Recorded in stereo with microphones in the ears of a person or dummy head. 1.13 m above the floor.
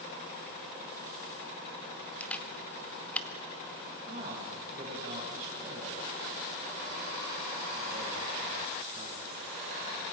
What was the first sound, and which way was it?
A camera shutter, 5° left (ahead or behind).